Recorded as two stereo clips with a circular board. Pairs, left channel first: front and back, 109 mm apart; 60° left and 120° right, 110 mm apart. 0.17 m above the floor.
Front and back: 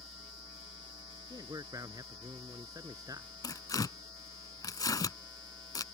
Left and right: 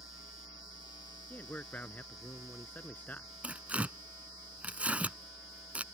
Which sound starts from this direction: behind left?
A man speaking, at 1.3 s.